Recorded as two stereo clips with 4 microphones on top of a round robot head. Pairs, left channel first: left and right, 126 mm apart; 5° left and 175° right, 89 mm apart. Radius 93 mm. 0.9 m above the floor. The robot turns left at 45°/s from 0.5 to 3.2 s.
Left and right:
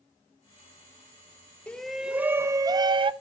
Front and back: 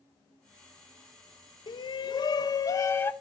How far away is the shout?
About 0.9 m.